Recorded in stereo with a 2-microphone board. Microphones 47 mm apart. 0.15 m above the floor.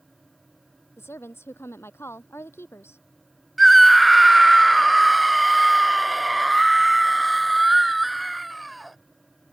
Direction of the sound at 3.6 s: Centre (ahead or behind).